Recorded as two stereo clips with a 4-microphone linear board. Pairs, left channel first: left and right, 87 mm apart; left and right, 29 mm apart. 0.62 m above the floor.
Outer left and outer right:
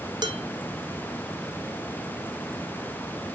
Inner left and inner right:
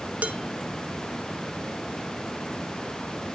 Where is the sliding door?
I don't hear a sliding door.